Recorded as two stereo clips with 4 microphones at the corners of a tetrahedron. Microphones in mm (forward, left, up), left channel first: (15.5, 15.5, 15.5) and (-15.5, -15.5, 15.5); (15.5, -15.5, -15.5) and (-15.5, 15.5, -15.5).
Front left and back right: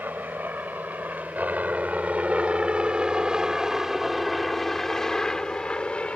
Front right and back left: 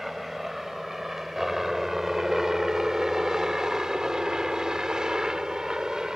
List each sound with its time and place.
0.0 s a helicopter: 140° right; by 6.2 s 75° left